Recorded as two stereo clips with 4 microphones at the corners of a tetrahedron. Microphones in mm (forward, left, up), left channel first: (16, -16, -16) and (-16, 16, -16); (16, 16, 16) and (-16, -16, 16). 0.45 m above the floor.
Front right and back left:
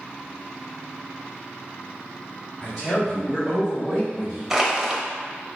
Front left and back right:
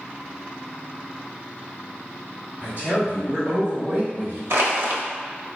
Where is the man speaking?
110° right, 1.7 m; by 4.4 s 155° right, 2.5 m.